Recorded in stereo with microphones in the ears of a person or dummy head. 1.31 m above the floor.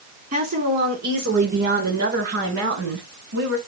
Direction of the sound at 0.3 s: 40° right (ahead or behind).